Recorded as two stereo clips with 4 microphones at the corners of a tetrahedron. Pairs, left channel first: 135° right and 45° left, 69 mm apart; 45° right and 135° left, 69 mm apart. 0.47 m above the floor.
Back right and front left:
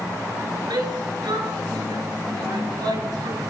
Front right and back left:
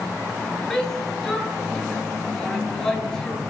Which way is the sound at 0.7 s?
35° left.